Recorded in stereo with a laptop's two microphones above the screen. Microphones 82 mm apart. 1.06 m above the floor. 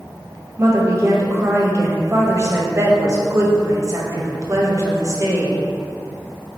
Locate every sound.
0.6 s a woman speaking: 40° right (ahead or behind), 0.9 m